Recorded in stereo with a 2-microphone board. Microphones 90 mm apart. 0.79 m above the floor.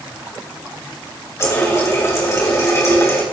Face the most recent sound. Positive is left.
turn(degrees=30)  # may be behind; listen again after turning